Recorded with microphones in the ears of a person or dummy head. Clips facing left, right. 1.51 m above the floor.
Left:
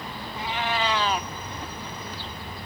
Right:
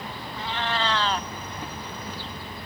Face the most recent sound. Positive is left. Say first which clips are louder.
# left 1 dB
turn(degrees=15)  # may be behind; listen again after turning